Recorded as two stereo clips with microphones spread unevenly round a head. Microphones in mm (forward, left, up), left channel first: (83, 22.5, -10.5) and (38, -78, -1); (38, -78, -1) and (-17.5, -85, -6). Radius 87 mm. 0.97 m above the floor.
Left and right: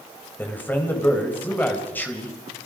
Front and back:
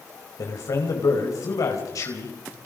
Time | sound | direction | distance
0.4 | a man speaking | 5° right | 5 m